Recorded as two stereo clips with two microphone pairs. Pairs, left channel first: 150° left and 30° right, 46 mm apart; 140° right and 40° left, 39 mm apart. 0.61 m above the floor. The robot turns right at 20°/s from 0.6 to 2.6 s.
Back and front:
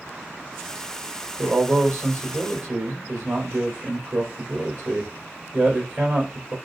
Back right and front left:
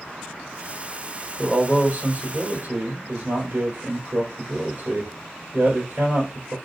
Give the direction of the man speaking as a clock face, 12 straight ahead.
1 o'clock.